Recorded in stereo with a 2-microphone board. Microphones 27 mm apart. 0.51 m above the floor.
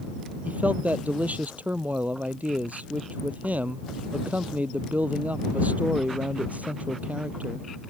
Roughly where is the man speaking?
Right.